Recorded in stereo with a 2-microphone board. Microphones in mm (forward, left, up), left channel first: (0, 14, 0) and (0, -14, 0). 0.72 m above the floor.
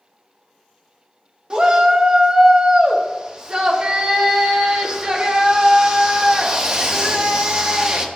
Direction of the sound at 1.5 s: 35° right (ahead or behind).